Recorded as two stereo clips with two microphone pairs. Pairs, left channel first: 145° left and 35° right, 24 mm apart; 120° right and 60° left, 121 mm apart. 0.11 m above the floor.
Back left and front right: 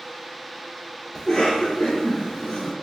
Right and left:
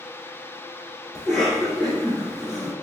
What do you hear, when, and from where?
1.1 s a cough: 155° left, 1.3 m